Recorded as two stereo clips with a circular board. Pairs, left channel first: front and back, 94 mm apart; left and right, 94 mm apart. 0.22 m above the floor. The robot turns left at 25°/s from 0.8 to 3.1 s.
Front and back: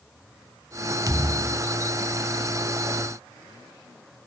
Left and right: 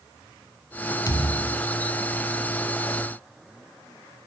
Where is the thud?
135° left, 1.0 m; by 1.7 s 120° left, 1.0 m.